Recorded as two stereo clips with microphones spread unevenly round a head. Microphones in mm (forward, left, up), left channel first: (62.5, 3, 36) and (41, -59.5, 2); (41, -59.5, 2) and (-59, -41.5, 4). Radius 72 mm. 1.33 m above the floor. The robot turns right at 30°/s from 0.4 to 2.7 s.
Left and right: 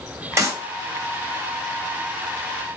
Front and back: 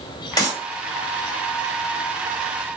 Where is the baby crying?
No baby crying in this recording.